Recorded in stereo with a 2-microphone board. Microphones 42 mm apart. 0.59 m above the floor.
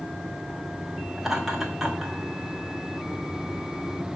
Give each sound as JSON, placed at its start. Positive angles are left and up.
{"t": 1.2, "sound": "laughter", "side_deg": -5, "distance_m": 1.5}